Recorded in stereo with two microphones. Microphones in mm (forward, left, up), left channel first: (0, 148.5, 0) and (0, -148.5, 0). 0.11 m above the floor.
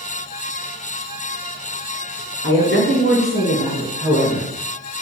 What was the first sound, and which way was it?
A woman speaking, 45° left (ahead or behind).